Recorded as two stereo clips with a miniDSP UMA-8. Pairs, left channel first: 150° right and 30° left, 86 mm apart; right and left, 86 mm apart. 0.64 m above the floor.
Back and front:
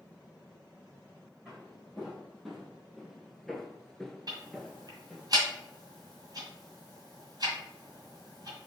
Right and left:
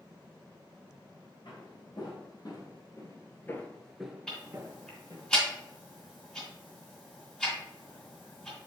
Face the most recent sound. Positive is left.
turn(degrees=-10)